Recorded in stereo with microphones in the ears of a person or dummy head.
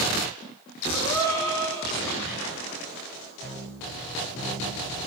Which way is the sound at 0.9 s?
15° left (ahead or behind).